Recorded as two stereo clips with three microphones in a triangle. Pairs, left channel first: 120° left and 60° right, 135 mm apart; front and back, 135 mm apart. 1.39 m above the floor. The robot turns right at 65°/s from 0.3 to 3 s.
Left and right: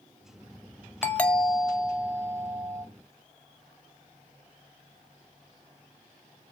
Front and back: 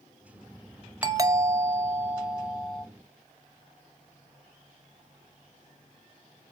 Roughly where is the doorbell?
Behind.